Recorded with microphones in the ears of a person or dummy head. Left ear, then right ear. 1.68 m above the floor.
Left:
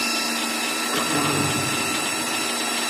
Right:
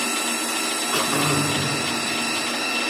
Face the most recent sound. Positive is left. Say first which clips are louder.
# right 2 dB
turn(degrees=-20)  # may be behind; listen again after turning